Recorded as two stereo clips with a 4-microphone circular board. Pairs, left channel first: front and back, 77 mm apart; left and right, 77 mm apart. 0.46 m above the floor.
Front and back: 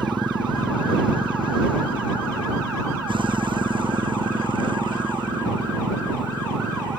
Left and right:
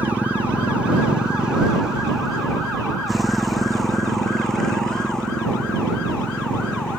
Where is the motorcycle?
160° right; by 7.0 s 165° left.